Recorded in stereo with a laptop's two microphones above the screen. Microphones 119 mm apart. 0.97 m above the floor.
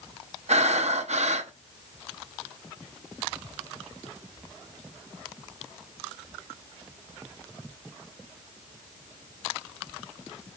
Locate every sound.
0.5 s breathing: 70° right (ahead or behind), 0.6 m